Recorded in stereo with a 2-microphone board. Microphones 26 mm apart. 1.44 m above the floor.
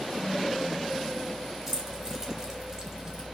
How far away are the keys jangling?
About 5 m.